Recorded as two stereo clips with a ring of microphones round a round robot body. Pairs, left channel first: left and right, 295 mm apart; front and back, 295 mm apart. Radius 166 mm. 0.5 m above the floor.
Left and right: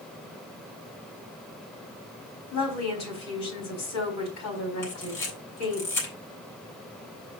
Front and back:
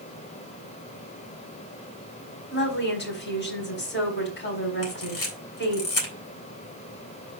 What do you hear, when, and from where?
2.5 s a woman speaking: 50° left, 4.5 m
4.8 s a camera shutter: 40° left, 4 m